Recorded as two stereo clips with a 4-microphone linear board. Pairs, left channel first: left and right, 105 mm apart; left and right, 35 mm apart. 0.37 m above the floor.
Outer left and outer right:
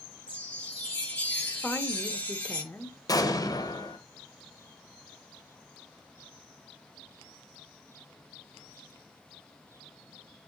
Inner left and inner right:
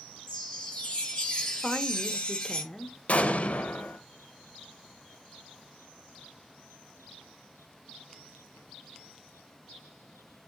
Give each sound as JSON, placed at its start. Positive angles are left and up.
{"t": 0.3, "sound": "a chime", "side_deg": 15, "distance_m": 7.0}
{"t": 1.6, "sound": "a woman speaking", "side_deg": 15, "distance_m": 1.4}
{"t": 3.1, "sound": "an explosion", "side_deg": 40, "distance_m": 1.1}